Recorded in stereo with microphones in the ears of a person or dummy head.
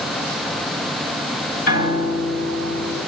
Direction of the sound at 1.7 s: 55° left (ahead or behind).